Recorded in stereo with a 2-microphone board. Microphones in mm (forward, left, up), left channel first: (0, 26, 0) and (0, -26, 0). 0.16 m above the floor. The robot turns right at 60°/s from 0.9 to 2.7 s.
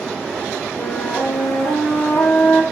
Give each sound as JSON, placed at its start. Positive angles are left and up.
{"t": 0.8, "sound": "a flute", "azimuth_deg": 50, "distance_m": 5.0}